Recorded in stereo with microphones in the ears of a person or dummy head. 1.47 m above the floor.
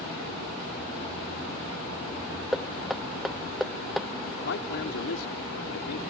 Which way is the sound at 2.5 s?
5° right (ahead or behind).